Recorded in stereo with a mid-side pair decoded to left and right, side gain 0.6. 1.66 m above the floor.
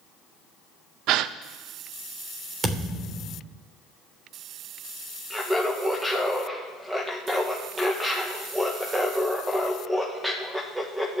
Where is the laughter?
10° right, 1.7 m.